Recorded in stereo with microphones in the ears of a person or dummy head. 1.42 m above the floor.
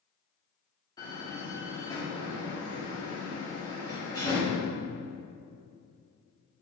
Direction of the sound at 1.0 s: 15° left (ahead or behind).